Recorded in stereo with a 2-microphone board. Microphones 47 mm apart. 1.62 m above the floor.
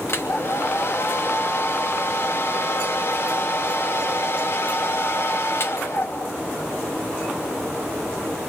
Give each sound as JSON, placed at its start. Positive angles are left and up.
{"t": 0.1, "sound": "a hair dryer", "side_deg": 55, "distance_m": 3.0}